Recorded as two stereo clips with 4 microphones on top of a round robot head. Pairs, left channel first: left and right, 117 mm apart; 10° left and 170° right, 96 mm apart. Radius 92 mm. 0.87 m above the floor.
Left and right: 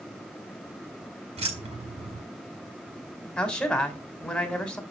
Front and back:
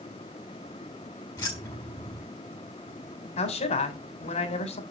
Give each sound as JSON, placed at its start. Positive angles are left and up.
{"t": 1.4, "sound": "keys jangling", "azimuth_deg": -55, "distance_m": 6.0}
{"t": 3.4, "sound": "a man speaking", "azimuth_deg": 5, "distance_m": 3.0}